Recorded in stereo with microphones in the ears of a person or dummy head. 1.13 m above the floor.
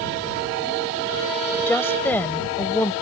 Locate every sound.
1.7 s a woman speaking: 15° left (ahead or behind)